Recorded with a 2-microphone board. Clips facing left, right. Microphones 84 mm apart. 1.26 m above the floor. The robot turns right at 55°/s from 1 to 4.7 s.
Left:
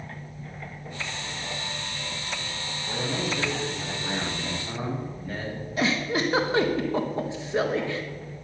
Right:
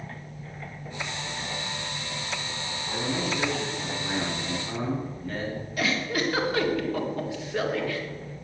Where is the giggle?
25° left (ahead or behind), 1.7 m.